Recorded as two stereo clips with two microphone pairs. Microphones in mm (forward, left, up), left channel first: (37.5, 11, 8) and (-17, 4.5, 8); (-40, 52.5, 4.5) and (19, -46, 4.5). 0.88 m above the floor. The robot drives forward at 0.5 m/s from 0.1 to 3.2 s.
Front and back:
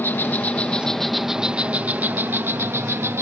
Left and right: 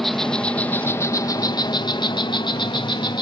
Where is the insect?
35° left; by 3.2 s 165° left.